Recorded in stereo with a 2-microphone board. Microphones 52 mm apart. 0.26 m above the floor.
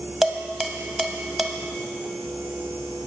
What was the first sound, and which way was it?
Dishes clattering, 5° right (ahead or behind).